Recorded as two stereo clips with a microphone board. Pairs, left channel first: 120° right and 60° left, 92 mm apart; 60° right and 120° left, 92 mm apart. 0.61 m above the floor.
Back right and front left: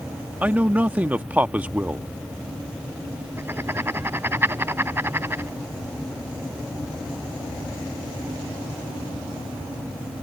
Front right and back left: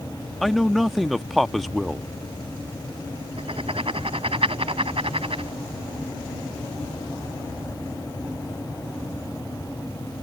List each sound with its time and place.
0.4 s a man speaking: 30° left
3.4 s writing: 125° left